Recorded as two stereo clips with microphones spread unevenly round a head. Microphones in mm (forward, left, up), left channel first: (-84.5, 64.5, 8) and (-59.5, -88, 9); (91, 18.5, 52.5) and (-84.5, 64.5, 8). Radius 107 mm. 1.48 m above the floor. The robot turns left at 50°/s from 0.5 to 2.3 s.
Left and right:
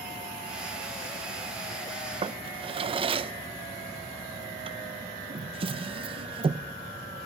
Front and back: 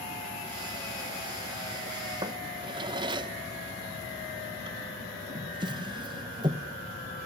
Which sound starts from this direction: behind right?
A drawer, at 2.2 s.